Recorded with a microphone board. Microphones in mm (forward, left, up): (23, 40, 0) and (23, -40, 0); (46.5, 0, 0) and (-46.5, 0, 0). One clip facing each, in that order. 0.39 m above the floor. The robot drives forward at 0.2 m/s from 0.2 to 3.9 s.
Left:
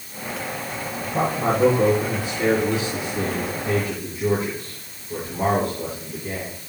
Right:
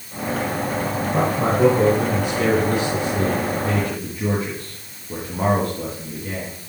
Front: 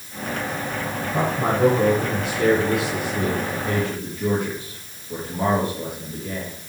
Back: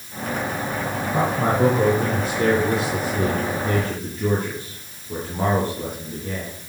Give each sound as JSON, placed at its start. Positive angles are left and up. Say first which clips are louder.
{"t": 1.0, "sound": "a man speaking", "louder": "even, back 1 dB", "azimuth_deg": -115, "distance_m": 3.5}